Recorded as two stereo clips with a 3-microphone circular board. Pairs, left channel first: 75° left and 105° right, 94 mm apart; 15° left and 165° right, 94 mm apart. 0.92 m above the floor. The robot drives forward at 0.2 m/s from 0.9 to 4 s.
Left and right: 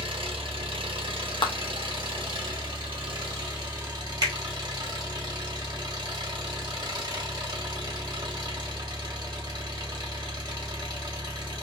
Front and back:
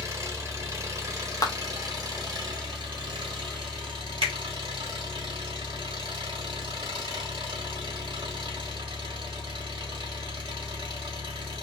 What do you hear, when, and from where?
0.0 s an engine running: 115° right, 0.9 m; by 11.6 s 140° right, 1.2 m
1.4 s a clap: 60° left, 0.6 m; by 1.5 s 65° left, 0.6 m
4.2 s a finger snap: 150° right, 1.3 m